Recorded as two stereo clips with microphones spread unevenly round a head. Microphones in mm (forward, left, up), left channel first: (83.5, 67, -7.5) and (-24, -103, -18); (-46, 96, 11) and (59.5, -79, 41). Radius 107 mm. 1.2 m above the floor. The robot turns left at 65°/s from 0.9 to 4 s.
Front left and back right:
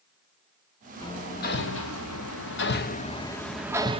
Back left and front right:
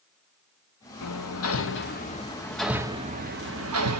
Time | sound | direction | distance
1.0 | hammering | 135° left | 1.6 m